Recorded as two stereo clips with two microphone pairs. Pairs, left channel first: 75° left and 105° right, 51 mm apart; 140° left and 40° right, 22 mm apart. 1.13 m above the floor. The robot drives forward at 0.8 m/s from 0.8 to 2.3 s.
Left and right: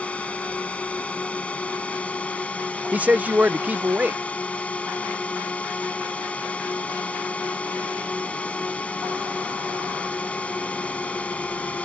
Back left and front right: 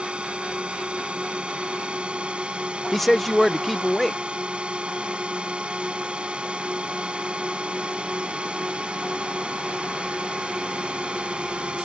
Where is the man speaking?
135° right.